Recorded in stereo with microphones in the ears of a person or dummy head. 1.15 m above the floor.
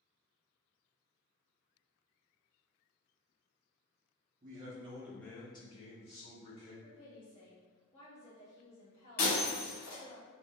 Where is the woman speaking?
30° left (ahead or behind), 1.3 m.